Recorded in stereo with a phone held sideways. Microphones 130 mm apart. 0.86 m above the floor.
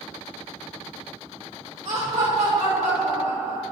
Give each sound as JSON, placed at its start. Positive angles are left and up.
{"t": 1.9, "sound": "laughter", "side_deg": -70, "distance_m": 2.5}